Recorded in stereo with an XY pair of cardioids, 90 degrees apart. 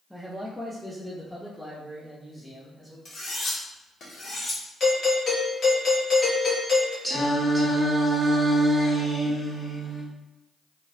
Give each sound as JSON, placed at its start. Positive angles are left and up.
{"t": 0.1, "sound": "a man speaking", "azimuth_deg": 5, "distance_m": 0.5}
{"t": 3.0, "sound": "cutlery clinking", "azimuth_deg": 60, "distance_m": 1.7}
{"t": 4.8, "sound": "a doorbell", "azimuth_deg": 50, "distance_m": 1.5}
{"t": 7.0, "sound": "singing", "azimuth_deg": 20, "distance_m": 1.3}